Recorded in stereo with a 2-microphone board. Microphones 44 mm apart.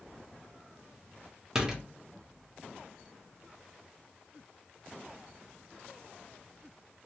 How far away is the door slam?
About 0.7 m.